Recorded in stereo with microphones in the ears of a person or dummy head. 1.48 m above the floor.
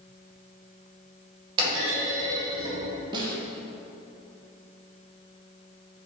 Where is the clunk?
30° right (ahead or behind), 2 m.